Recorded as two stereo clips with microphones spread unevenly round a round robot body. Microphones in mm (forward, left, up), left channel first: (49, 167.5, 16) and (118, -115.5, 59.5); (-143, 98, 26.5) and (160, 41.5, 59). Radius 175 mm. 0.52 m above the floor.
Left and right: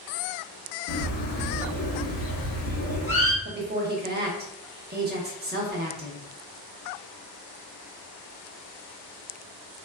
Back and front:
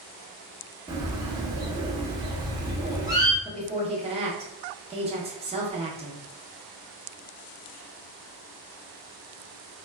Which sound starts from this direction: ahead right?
A woman speaking, at 3.5 s.